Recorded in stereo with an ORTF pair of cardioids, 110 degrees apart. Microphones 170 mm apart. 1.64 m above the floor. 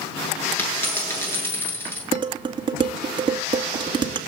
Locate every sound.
0.6 s a dropped coin: 15° left, 8 m
2.1 s dishes clattering: 30° right, 2.5 m